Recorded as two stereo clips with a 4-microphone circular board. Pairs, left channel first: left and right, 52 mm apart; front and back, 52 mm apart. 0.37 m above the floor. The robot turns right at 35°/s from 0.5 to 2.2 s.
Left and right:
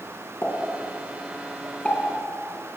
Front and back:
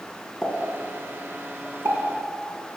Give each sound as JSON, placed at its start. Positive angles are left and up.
{"t": 0.4, "sound": "a pop", "azimuth_deg": 115, "distance_m": 2.0}